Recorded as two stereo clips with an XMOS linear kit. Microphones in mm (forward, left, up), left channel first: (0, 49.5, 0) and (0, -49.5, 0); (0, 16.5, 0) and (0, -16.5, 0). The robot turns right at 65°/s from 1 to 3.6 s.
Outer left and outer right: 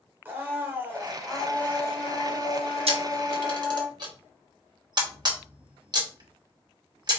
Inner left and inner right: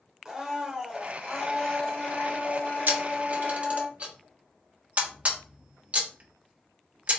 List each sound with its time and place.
0.2 s a blender: 20° right, 1.4 m; by 3.9 s 150° left, 1.4 m
2.9 s a camera shutter: 80° right, 1.1 m; by 7.2 s 45° right (ahead or behind), 1.1 m